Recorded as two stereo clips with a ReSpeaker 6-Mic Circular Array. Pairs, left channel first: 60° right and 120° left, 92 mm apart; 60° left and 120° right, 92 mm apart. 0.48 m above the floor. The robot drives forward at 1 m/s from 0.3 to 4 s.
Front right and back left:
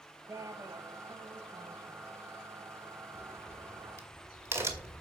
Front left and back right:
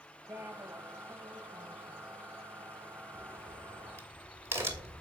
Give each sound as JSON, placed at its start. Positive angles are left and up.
{"t": 0.3, "sound": "a woman speaking", "azimuth_deg": 175, "distance_m": 3.0}
{"t": 3.1, "sound": "a crack", "azimuth_deg": 180, "distance_m": 1.6}